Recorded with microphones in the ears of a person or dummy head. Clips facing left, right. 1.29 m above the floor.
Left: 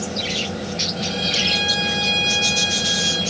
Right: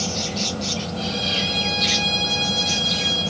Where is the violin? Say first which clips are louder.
Left 1 dB; 10° left (ahead or behind), 4 m.